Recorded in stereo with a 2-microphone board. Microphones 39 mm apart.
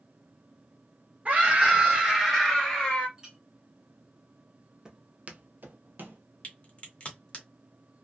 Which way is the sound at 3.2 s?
20° right (ahead or behind).